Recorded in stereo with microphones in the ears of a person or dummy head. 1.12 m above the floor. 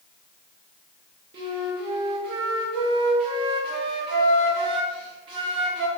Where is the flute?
35° right (ahead or behind), 0.6 m.